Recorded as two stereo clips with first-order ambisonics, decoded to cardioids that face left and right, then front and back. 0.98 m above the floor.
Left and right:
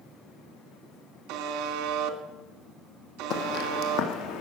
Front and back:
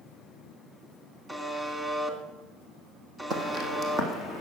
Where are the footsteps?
125° left, 2.5 m; by 4.4 s 110° left, 3.5 m.